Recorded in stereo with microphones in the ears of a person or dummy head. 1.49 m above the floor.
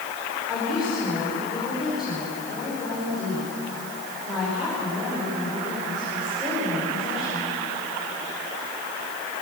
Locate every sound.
0.5 s a woman speaking: centre (ahead or behind), 5.5 m